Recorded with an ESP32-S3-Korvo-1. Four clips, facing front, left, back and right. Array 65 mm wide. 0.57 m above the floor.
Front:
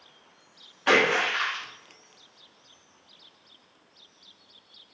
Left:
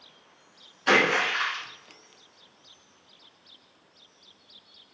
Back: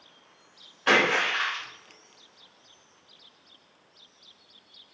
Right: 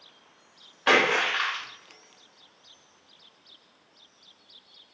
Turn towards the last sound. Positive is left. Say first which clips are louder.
# even, front 1 dB
turn(degrees=-90)